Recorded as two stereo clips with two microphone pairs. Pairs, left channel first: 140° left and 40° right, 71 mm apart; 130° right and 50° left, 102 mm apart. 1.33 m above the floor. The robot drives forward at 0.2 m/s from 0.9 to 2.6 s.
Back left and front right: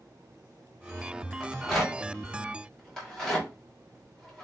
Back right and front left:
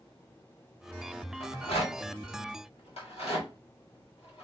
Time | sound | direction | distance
1.4 | a rattle | 130° right | 1.2 m